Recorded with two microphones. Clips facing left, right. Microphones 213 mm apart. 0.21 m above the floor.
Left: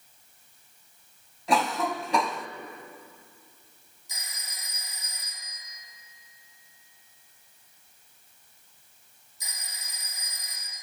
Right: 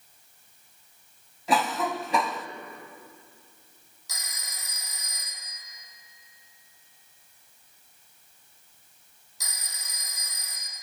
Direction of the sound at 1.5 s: Centre (ahead or behind).